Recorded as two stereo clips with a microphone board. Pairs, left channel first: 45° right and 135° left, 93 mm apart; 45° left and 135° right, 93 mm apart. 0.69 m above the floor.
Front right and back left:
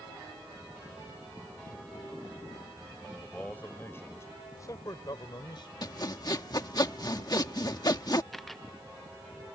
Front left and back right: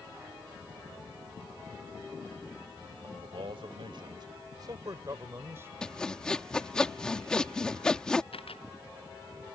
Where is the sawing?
35° right.